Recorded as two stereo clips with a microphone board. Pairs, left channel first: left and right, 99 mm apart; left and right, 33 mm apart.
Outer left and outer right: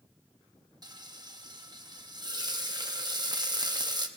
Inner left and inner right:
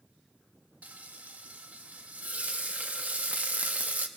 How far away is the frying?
About 0.9 m.